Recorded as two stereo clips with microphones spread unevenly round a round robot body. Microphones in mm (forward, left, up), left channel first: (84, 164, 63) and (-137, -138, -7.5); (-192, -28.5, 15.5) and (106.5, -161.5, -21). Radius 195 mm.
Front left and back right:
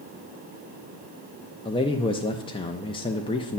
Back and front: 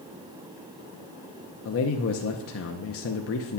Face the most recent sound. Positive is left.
turn(degrees=140)